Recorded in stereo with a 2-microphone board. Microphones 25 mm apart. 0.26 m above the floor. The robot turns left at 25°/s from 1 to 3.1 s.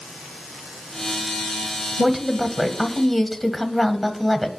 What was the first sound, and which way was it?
A woman speaking, 5° right (ahead or behind).